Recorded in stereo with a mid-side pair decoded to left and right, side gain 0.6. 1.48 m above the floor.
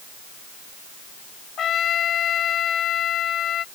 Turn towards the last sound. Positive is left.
turn(degrees=50)